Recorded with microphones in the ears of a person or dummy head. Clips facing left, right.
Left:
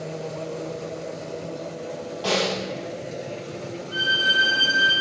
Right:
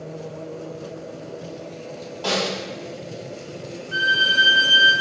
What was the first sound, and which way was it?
A snare drum, centre (ahead or behind).